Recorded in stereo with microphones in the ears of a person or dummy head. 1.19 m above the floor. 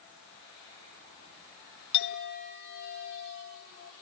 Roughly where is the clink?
Left.